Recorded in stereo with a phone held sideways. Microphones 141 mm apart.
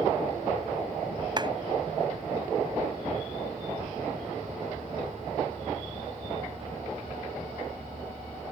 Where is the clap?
30° right (ahead or behind).